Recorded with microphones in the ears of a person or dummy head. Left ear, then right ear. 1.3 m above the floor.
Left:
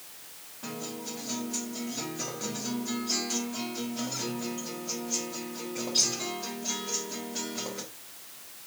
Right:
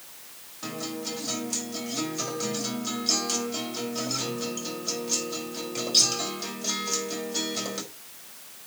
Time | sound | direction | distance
0.6 | a guitar | 65° right (ahead or behind) | 5 m